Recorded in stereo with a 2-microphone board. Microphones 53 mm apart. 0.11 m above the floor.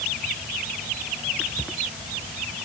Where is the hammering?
No hammering in this recording.